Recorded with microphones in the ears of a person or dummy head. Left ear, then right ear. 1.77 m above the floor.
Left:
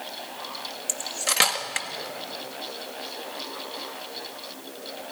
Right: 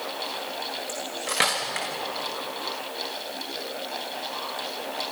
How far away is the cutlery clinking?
About 1.5 m.